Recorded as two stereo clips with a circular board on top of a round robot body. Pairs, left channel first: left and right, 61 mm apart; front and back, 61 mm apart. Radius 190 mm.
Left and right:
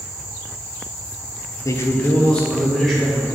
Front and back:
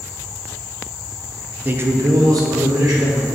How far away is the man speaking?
About 1.0 m.